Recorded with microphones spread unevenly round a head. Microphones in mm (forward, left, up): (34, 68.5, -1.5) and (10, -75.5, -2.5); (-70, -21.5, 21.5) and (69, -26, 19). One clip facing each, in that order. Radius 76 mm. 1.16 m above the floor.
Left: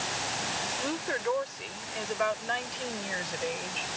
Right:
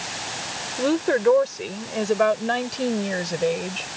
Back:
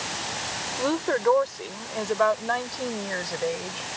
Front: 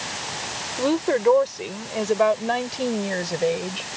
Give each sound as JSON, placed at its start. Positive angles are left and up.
{"t": 0.8, "sound": "a woman speaking", "azimuth_deg": -75}